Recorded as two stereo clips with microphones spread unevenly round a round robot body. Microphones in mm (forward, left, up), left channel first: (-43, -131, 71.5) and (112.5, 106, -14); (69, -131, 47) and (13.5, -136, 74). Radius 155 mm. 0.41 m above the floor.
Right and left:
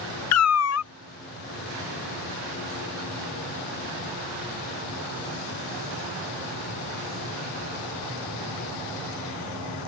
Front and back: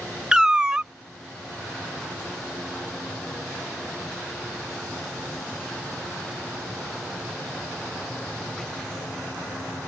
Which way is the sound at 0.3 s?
80° right.